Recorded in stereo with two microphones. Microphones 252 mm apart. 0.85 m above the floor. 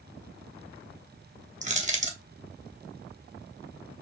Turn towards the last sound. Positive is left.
turn(degrees=-30)  # may be behind; listen again after turning